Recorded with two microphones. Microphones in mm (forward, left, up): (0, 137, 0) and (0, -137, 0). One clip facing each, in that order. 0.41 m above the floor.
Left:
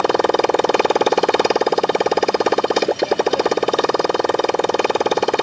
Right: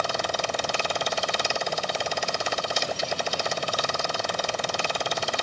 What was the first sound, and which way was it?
A motorcycle, 70° left (ahead or behind).